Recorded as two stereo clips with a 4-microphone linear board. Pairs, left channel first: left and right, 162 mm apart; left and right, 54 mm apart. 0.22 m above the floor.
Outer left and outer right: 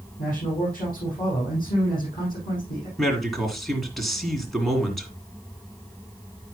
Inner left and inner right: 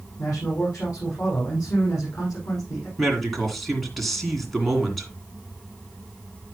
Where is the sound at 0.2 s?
65° left (ahead or behind), 8.5 m.